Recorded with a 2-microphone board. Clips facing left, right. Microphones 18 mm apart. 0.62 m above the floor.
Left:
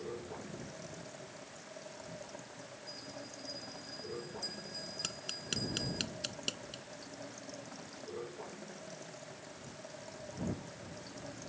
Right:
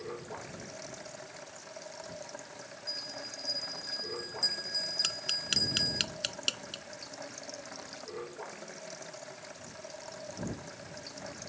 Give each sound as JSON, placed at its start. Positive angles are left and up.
{"t": 0.0, "sound": "running water", "side_deg": -35}
{"t": 2.9, "sound": "a bell", "side_deg": -45}
{"t": 5.0, "sound": "tapping", "side_deg": -25}